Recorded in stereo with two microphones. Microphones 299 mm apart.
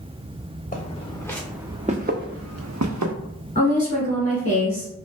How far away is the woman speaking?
About 1.1 m.